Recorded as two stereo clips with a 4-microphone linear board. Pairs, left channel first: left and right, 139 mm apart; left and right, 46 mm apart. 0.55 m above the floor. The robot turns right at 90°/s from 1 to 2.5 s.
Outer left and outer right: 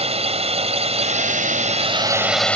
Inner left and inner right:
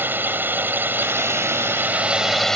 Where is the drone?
125° right; by 2.5 s 10° left.